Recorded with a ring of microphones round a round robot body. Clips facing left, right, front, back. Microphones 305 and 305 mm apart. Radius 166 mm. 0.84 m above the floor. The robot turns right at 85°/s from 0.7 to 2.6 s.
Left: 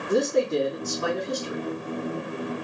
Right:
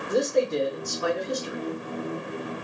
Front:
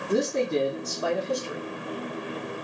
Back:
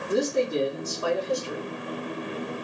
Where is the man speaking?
35° left, 2 m; by 1.7 s 115° left, 2 m.